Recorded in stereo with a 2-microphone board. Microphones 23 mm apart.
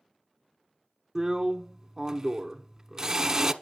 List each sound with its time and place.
1.1 s a drill: 25° right (ahead or behind), 0.9 m